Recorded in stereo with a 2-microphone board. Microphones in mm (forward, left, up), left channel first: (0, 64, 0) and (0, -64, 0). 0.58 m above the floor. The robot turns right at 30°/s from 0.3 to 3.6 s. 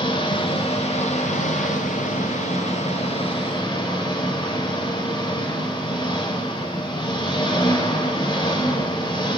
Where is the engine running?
40° left, 1.5 m; by 9.4 s 140° left, 1.5 m.